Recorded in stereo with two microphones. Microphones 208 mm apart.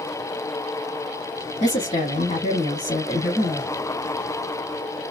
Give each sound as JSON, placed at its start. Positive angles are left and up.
{"t": 1.6, "sound": "a woman speaking", "side_deg": 30, "distance_m": 1.2}